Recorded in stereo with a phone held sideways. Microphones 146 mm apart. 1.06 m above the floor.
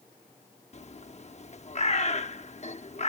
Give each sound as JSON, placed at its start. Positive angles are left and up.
{"t": 0.7, "sound": "a bird", "side_deg": 50}